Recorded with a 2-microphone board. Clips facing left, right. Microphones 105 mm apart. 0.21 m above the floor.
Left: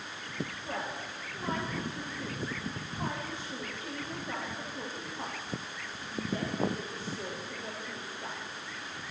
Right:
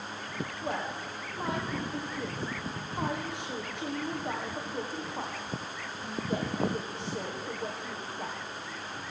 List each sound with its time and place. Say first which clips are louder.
0.6 s a woman speaking: right 3 dB; 65° right (ahead or behind), 9 m